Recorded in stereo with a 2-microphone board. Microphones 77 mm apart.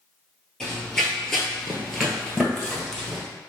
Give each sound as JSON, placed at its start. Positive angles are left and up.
{"t": 0.6, "sound": "running footsteps", "side_deg": 10, "distance_m": 1.3}